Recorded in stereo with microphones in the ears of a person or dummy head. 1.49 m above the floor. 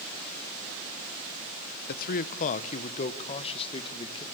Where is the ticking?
I don't hear ticking.